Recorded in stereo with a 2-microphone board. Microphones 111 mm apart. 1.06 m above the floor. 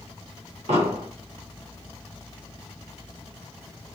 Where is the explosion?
75° right (ahead or behind), 1.1 m.